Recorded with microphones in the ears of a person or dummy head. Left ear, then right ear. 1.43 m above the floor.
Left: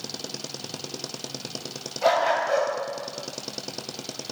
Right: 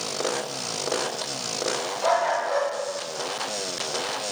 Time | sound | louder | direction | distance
2.0 | a dog barking | left 2 dB | 10° left (ahead or behind) | 4 m